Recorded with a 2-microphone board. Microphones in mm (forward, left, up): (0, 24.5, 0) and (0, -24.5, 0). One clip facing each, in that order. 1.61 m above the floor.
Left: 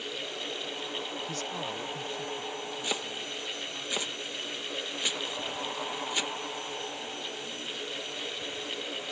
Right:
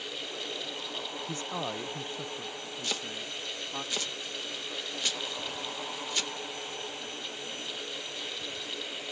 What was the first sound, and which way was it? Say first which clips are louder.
A man speaking: even; 20° right (ahead or behind).